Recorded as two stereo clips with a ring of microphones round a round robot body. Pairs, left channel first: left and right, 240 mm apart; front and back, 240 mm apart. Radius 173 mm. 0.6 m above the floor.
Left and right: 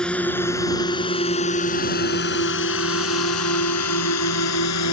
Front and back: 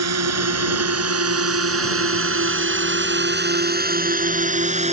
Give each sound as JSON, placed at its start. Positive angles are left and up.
{"t": 0.0, "sound": "a drone", "azimuth_deg": 180}